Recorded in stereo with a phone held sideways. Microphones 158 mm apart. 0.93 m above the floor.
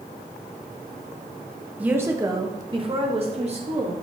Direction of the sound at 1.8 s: 10° right (ahead or behind).